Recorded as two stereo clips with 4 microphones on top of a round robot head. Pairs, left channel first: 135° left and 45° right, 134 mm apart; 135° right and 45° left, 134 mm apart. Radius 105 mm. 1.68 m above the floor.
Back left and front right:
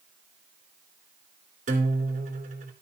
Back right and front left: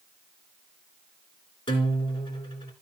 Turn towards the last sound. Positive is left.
turn(degrees=-80)